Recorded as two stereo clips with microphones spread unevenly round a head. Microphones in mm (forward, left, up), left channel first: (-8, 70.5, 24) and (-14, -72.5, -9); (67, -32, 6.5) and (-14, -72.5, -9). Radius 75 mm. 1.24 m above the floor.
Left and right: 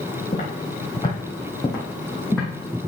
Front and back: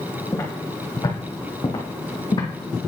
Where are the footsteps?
70° left, 2 m; by 2.5 s 10° left, 3 m.